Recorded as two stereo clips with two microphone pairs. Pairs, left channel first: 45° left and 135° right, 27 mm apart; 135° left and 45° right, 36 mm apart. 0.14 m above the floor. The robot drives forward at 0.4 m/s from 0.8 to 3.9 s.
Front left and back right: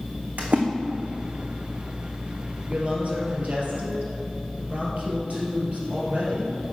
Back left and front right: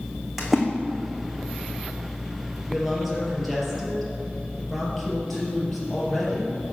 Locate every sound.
0.4 s a splash: 130° right, 1.7 m
2.7 s a woman speaking: 130° right, 3 m; by 6.6 s 135° right, 3.5 m